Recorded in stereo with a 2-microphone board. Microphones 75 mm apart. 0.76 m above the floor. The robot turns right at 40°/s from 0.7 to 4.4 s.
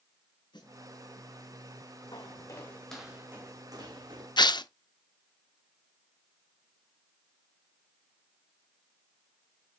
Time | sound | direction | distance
0.5 | a snare drum | 85° left | 3 m
2.1 | footsteps | 65° left (ahead or behind) | 2 m
4.4 | tearing paper | 70° left (ahead or behind) | 0.5 m